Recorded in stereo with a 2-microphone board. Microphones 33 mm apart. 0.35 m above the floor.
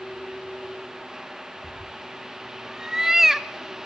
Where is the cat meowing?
20° right (ahead or behind), 2 m; by 3.5 s 10° right (ahead or behind), 0.8 m.